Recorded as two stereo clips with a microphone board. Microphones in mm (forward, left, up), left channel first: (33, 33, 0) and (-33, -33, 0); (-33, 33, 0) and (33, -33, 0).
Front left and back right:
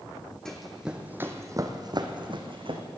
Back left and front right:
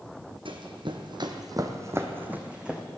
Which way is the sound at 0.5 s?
40° right.